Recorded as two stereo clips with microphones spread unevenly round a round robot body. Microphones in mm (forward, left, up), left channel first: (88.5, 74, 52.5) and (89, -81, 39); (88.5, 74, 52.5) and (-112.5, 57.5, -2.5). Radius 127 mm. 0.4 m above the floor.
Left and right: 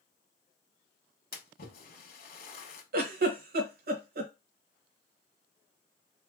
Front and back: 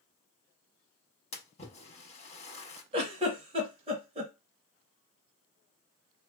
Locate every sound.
1.3 s a splash: 65° left, 0.9 m
2.9 s a giggle: 110° right, 0.8 m